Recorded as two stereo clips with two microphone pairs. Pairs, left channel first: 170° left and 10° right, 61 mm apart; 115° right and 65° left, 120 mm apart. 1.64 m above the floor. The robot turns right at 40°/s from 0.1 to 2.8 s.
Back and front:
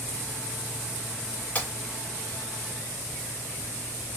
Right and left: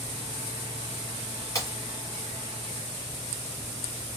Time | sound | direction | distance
1.6 | breaking glass | 155° right | 1.9 m